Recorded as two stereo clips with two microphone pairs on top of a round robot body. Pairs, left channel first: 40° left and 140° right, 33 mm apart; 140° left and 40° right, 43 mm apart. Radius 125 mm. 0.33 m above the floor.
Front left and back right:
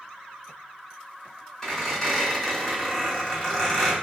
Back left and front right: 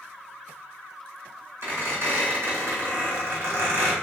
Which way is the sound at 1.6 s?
40° right.